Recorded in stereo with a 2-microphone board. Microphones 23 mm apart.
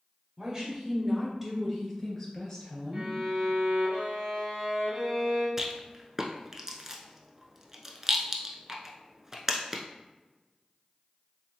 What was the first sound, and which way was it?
A woman speaking, 35° right (ahead or behind).